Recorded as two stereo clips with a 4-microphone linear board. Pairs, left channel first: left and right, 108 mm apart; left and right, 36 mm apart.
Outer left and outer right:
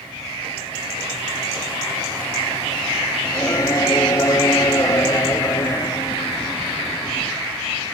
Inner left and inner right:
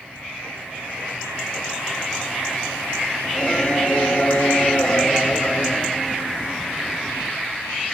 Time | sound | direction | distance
3.2 | singing | 30° left (ahead or behind) | ?